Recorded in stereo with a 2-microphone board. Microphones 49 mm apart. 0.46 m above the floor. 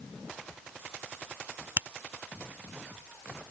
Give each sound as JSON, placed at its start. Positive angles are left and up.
{"t": 1.8, "sound": "a finger snap", "side_deg": -50}